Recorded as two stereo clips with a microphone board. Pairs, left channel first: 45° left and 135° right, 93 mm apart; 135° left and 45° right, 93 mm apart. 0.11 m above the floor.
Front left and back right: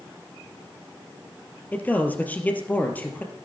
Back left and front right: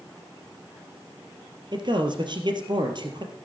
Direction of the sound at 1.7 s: 25° right.